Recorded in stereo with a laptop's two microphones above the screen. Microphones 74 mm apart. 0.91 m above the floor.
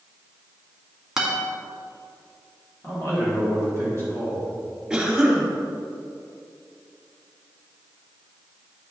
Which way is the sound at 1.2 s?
5° right (ahead or behind).